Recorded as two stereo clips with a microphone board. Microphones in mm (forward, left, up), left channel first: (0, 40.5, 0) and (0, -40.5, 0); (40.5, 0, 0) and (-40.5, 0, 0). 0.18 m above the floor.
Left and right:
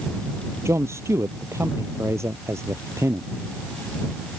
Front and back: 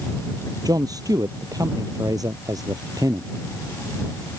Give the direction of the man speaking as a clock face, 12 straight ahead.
5 o'clock.